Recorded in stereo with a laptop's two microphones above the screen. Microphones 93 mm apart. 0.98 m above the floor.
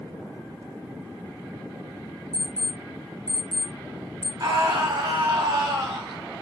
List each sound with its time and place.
2.3 s an alarm clock: 40° right (ahead or behind), 1.0 m
4.4 s a scream: 50° right (ahead or behind), 1.4 m